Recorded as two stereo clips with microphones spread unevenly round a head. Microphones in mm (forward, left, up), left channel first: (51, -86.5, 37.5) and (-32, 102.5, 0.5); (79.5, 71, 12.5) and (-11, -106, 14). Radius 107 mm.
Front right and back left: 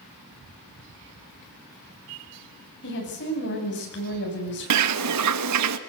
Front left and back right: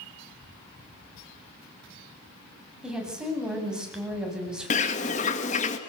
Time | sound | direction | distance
2.8 | a woman speaking | 30° right | 9 m
4.7 | a bird | 120° left | 1.5 m